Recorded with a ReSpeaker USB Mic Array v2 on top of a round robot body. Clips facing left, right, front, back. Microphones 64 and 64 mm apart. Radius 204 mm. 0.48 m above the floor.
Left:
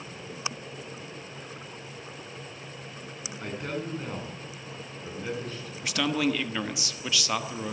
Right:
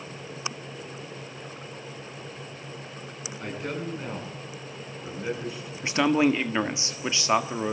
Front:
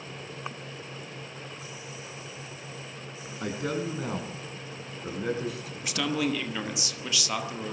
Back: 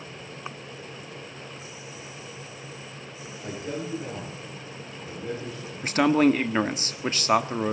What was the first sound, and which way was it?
A man speaking, straight ahead.